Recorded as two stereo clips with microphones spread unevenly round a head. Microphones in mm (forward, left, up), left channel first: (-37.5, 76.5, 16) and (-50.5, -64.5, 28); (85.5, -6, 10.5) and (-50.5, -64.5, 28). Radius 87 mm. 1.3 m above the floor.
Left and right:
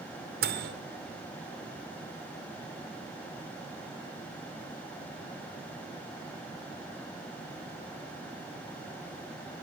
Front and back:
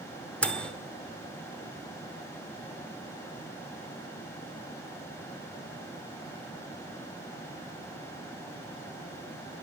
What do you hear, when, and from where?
0.4 s a microwave: 60° right, 0.8 m